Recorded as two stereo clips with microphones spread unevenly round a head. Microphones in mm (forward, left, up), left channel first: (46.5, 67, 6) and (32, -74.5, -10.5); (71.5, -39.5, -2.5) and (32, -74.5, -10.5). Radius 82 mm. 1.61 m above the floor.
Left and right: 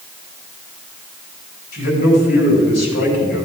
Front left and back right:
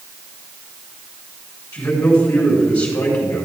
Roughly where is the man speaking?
Left.